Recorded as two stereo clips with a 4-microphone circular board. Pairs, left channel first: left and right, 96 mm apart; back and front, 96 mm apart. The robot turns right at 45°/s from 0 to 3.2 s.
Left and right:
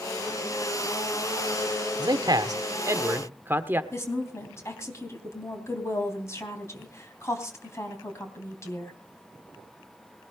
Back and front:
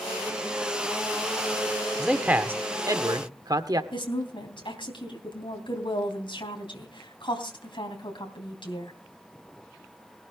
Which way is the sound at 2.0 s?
85° right.